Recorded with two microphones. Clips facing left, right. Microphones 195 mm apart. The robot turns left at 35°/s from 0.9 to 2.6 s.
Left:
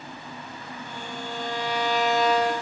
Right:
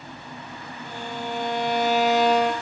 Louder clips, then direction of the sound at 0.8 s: Right 5 dB; 100° right.